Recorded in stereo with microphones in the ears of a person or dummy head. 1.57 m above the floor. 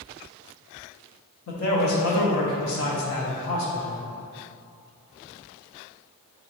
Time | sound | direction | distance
1.5 | a man speaking | 70° left (ahead or behind) | 0.7 m